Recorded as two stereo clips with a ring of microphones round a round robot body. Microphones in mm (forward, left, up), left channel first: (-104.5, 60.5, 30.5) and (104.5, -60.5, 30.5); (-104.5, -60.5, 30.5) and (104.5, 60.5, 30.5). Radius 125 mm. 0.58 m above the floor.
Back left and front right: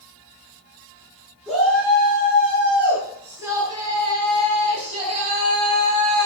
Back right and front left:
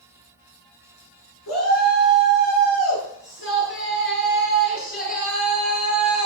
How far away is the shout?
About 7.5 m.